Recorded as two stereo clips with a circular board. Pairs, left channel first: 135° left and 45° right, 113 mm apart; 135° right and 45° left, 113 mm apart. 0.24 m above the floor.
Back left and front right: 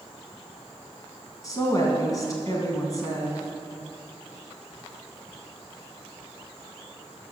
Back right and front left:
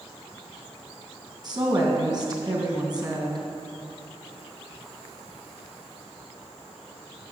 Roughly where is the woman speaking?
Left.